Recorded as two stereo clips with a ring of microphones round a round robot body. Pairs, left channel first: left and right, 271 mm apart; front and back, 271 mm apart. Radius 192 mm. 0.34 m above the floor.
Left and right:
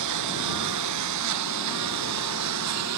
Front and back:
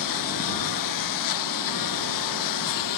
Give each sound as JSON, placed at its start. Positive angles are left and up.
{"t": 0.0, "sound": "a lawn mower", "azimuth_deg": -40}